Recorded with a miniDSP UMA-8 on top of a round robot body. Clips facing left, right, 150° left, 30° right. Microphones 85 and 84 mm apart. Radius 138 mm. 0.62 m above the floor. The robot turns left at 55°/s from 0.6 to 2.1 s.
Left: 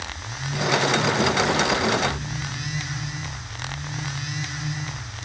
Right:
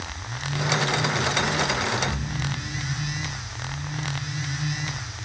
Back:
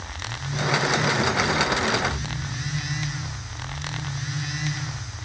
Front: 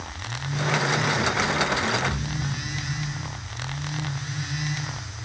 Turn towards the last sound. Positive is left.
turn(degrees=-45)